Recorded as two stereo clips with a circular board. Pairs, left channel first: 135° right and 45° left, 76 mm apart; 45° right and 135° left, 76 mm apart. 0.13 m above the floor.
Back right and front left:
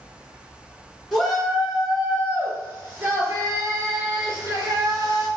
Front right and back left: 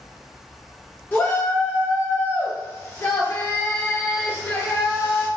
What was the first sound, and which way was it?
A shout, 50° right.